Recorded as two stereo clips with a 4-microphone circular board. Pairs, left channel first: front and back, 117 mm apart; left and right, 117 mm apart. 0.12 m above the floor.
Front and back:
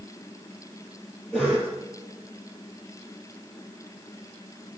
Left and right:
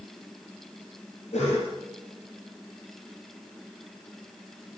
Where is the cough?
85° left, 3.5 m.